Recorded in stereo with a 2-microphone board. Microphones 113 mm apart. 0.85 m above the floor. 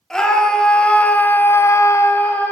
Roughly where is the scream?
Centre.